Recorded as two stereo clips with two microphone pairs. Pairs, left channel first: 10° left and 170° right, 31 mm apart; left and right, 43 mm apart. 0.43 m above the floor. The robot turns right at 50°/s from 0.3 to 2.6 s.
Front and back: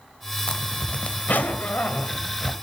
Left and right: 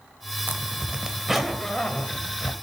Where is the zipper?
45° right, 1.0 m; by 2.5 s 60° left, 1.0 m.